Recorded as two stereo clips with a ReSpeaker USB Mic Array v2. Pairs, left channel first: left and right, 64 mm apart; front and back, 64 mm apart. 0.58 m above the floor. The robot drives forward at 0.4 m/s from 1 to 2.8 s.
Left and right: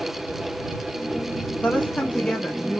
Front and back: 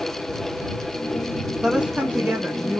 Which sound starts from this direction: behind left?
A woman speaking, at 1.6 s.